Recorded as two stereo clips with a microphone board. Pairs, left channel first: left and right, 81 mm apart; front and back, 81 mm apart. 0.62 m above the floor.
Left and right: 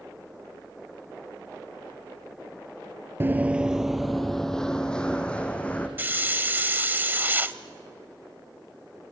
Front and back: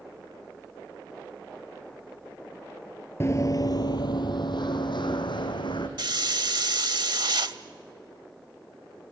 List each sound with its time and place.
3.2 s running footsteps: 40° right, 0.7 m; by 5.9 s 15° left, 2.5 m
6.0 s a hiss: 155° right, 0.7 m